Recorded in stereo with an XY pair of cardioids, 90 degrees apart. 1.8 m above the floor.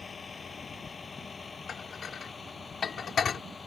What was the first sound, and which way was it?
A vehicle, 45° left.